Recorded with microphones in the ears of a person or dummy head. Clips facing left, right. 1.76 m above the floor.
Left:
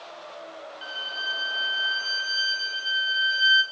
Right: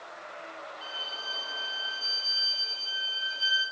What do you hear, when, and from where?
0.8 s a violin: 15° left (ahead or behind), 2.5 m